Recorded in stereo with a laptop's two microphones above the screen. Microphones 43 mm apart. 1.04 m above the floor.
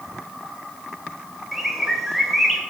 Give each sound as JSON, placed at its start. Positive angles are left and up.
{"t": 1.5, "sound": "a bird", "side_deg": -5, "distance_m": 2.0}